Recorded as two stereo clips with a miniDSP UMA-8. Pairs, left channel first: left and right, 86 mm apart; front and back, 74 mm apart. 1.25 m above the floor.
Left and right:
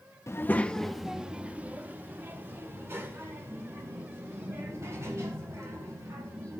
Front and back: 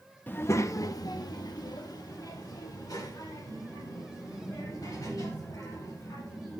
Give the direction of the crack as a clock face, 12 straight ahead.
No crack in this recording.